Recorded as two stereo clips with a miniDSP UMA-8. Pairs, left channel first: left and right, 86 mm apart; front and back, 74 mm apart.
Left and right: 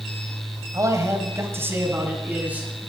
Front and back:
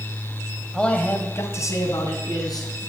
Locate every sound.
0.7 s a man speaking: 75° right, 1.6 m; by 2.9 s 15° right, 4 m